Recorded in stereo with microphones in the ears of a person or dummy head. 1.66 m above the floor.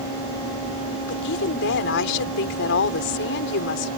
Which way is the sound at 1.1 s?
65° left (ahead or behind).